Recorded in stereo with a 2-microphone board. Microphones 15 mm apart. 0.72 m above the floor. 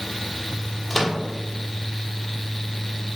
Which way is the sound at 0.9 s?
10° left (ahead or behind).